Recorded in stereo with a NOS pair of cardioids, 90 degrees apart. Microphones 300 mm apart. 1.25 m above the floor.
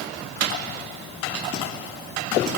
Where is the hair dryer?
I don't hear a hair dryer.